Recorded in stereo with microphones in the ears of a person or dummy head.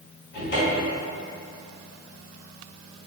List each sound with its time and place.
0.3 s a cupboard door: 85° left, 1.3 m